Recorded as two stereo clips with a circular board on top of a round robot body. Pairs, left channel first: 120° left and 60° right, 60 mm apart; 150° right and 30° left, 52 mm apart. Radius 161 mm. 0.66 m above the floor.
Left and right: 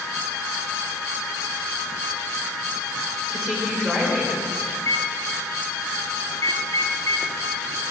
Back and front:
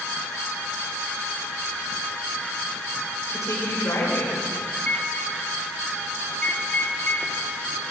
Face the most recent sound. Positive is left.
turn(degrees=145)